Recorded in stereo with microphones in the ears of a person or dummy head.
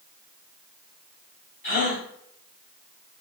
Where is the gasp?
40° left (ahead or behind), 1.9 m.